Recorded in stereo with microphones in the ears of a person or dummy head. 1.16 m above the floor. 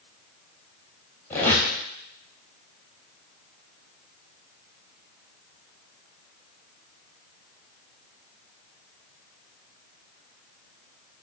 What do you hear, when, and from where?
1.3 s a squeak: 10° left (ahead or behind), 2.5 m